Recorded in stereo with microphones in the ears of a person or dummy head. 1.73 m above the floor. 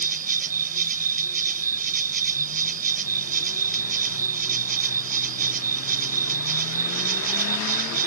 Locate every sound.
0.0 s an insect: 50° right (ahead or behind)